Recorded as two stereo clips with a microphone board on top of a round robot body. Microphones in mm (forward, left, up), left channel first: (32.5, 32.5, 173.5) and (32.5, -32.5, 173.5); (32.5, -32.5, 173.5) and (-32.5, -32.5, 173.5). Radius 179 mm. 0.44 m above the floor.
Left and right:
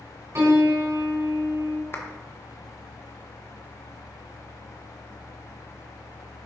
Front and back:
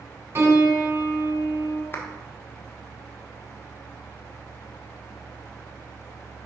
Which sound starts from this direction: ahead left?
A clap, at 1.9 s.